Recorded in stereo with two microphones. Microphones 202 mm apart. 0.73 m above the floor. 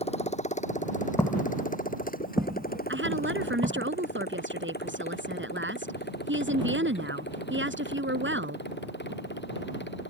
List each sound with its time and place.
0.0 s a motorcycle: 35° left (ahead or behind); by 10.1 s 65° left (ahead or behind)
1.2 s footsteps: 15° left (ahead or behind); by 3.9 s 35° right (ahead or behind)
2.9 s a woman speaking: 80° right